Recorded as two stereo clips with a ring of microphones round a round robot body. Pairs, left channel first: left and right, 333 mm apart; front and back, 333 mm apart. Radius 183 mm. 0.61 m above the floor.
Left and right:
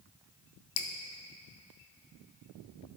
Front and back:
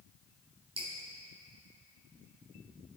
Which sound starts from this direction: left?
Dripping, at 0.8 s.